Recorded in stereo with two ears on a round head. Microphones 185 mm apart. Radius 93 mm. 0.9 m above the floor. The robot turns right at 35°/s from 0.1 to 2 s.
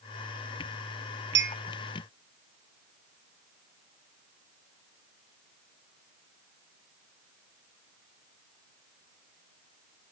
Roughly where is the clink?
Right.